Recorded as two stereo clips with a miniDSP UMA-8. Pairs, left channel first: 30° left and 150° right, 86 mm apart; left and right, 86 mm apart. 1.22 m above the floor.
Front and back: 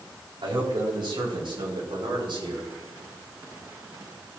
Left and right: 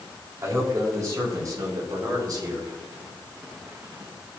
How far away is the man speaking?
About 6 m.